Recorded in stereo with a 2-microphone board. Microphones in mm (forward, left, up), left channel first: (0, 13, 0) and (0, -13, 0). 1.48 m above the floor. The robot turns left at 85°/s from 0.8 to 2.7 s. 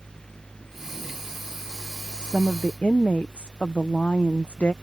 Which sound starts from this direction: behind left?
A woman speaking, at 2.2 s.